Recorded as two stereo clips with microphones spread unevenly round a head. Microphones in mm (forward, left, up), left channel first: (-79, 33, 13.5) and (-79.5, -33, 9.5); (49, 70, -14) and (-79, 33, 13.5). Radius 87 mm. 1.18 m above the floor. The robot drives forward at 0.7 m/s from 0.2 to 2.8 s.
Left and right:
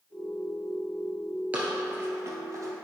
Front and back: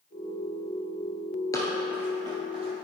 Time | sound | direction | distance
1.5 | running footsteps | 45° right | 1.2 m